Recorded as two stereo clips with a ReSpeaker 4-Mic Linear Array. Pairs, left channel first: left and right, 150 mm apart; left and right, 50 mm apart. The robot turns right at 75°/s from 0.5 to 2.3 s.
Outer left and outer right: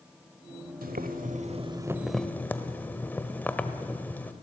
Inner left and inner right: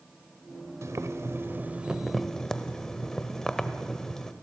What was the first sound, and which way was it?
Boiling, 100° right.